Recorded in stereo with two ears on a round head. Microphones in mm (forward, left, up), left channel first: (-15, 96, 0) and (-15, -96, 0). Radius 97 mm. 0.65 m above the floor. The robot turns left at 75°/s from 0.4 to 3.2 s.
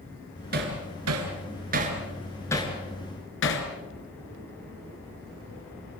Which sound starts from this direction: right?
Hammering, at 0.5 s.